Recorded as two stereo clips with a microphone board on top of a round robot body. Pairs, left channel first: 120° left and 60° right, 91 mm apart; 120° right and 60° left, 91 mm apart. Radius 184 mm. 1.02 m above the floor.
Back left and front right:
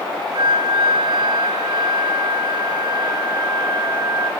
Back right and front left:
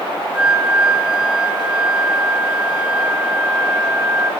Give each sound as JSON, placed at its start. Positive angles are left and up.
{"t": 0.3, "sound": "a flute", "azimuth_deg": -20, "distance_m": 3.0}